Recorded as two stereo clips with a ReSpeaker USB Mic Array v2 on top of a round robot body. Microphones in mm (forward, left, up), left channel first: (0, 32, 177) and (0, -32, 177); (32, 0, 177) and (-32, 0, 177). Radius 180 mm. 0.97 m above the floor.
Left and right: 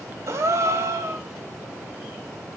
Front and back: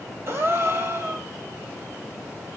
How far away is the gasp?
About 2.0 m.